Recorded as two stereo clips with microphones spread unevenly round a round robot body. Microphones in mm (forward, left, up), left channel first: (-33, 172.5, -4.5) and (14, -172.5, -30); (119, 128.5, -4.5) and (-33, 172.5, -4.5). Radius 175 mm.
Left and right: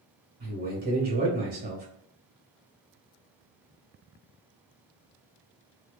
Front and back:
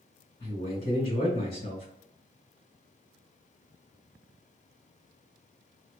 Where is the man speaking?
25° right, 1.6 m.